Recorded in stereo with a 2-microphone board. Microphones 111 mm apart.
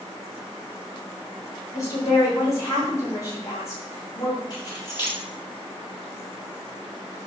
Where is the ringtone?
I don't hear a ringtone.